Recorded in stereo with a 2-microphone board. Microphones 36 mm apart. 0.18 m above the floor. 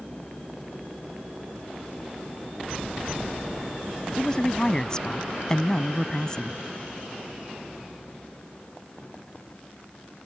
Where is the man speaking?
20° left (ahead or behind).